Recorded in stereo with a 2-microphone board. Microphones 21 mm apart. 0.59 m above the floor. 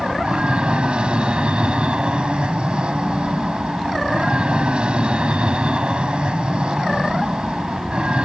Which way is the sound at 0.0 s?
55° right (ahead or behind).